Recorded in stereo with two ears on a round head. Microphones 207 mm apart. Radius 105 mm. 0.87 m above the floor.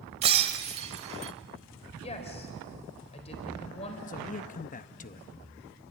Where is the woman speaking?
25° left (ahead or behind), 4.5 m.